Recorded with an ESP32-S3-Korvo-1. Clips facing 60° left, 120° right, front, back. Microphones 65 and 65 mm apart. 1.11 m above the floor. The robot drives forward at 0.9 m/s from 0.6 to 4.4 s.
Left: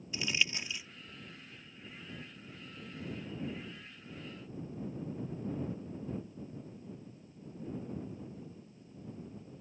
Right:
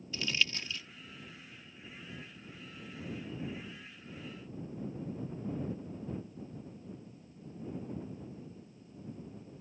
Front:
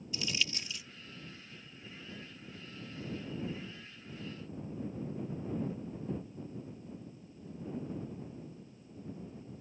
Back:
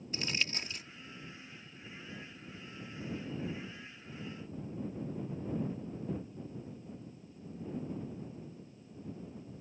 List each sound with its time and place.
0.1 s crumpling: 135° left